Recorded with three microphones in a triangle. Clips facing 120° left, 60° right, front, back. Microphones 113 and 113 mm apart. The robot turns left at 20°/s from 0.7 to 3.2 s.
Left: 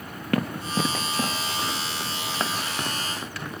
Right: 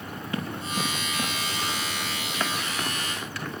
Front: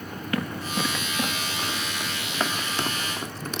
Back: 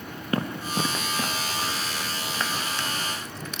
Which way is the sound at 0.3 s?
125° left.